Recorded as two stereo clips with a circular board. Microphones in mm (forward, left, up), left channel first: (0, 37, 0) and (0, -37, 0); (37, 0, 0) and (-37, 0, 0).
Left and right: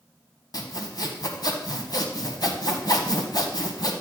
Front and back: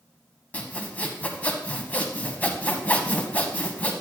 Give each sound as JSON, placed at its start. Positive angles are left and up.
{"t": 0.5, "sound": "sawing", "azimuth_deg": 70, "distance_m": 0.9}